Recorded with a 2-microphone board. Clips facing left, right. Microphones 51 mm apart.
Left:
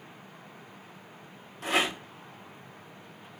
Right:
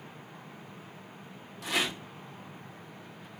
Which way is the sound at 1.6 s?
40° left (ahead or behind).